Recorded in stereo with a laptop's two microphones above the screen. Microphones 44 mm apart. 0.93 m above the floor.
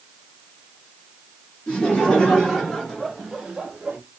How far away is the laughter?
About 1.6 m.